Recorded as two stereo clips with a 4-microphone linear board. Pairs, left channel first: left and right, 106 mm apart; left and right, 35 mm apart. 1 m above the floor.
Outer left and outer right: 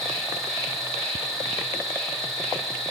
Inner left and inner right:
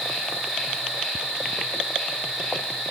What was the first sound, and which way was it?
An insect, 5° left (ahead or behind).